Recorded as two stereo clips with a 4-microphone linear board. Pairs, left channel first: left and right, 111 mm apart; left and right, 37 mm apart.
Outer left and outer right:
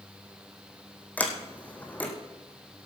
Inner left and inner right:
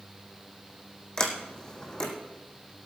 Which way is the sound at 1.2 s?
15° left (ahead or behind).